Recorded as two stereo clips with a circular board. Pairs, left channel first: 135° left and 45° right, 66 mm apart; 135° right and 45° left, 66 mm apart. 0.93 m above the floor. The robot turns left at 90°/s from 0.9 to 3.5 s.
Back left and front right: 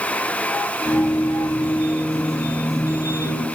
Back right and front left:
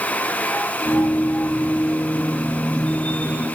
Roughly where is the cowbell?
No cowbell in this recording.